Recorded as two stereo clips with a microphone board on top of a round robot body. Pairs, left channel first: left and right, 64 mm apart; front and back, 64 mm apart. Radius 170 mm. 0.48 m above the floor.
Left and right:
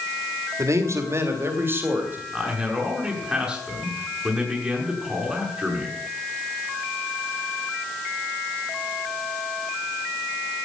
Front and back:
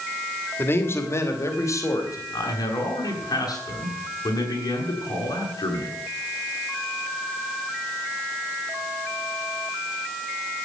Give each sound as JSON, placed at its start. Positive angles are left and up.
{"t": 0.6, "sound": "a man speaking", "azimuth_deg": -55, "distance_m": 3.0}
{"t": 2.3, "sound": "a man speaking", "azimuth_deg": -10, "distance_m": 7.5}